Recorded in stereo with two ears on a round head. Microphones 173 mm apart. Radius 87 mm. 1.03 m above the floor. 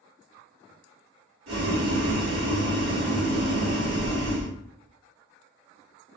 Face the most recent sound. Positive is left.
turn(degrees=-55)  # may be behind; listen again after turning